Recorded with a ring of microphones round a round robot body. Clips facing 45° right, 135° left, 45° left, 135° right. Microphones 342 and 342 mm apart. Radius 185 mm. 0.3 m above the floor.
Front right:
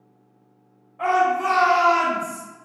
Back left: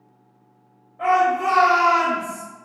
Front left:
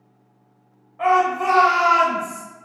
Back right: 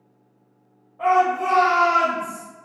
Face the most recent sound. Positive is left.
turn(degrees=-25)